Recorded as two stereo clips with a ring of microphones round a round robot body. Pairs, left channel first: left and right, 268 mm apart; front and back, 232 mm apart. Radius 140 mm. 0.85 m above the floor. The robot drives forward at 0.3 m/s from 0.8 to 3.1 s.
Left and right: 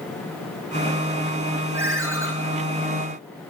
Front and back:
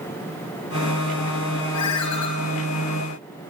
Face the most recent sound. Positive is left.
turn(degrees=-10)